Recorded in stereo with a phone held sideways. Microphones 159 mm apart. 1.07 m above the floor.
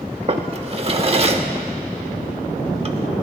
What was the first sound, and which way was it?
A drawer, 40° right (ahead or behind).